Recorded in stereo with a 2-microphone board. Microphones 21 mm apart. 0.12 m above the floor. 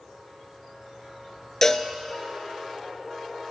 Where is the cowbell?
20° left (ahead or behind), 0.7 m.